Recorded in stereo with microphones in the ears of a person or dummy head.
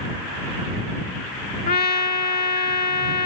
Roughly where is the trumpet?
Left.